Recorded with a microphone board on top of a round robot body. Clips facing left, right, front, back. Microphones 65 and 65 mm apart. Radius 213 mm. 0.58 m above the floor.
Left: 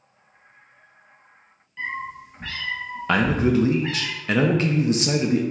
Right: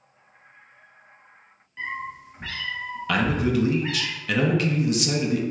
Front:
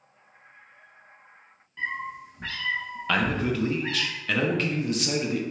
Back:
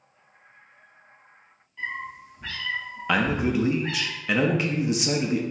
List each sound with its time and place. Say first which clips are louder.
1.8 s a cat meowing: left 2 dB, front 1 dB; 15° right, 0.8 m; by 4.1 s 10° right, 2 m
3.1 s a man speaking: left 3 dB, back 2 dB; 115° left, 0.8 m